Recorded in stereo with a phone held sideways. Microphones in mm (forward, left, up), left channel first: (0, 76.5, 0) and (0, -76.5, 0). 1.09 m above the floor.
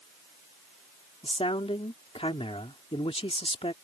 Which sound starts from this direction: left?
A man speaking, at 1.2 s.